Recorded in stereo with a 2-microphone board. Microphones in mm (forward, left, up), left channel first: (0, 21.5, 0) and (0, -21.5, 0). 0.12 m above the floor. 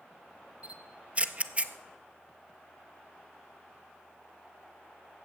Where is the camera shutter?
35° right (ahead or behind), 0.6 m.